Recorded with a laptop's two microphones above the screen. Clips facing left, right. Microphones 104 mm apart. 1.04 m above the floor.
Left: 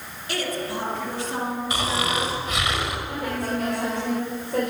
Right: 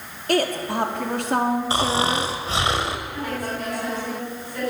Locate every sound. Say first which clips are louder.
0.3 s a woman speaking: right 6 dB; 60° right (ahead or behind), 2.5 m; by 2.3 s 75° right (ahead or behind), 2.5 m
1.7 s snoring: right 4 dB; 35° right (ahead or behind), 1.7 m
3.1 s a woman speaking: left 1 dB; 70° left (ahead or behind), 5 m